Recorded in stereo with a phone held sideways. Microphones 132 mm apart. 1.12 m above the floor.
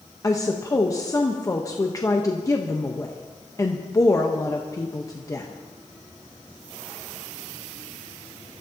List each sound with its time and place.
0.2 s a woman speaking: 25° left (ahead or behind), 1.1 m